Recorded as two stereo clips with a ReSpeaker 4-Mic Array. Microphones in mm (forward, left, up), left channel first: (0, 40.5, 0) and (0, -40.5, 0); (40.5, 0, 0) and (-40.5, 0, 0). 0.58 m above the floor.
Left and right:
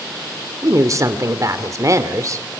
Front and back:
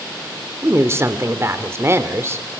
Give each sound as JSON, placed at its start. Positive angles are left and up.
{"t": 0.6, "sound": "a woman speaking", "azimuth_deg": -130, "distance_m": 1.8}